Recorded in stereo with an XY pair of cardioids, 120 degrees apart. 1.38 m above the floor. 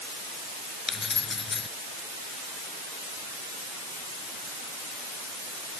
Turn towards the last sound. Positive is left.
turn(degrees=25)